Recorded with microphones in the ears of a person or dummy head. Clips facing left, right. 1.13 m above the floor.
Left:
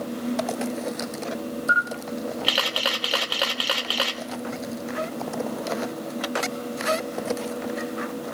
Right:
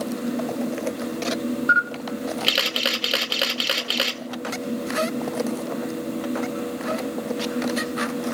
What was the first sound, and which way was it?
A camera shutter, 30° right (ahead or behind).